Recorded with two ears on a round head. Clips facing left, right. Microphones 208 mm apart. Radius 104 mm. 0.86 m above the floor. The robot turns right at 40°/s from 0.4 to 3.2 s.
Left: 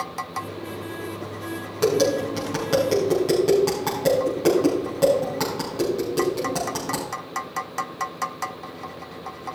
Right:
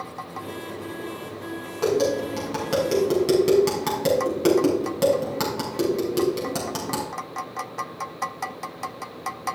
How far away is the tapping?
About 5.5 m.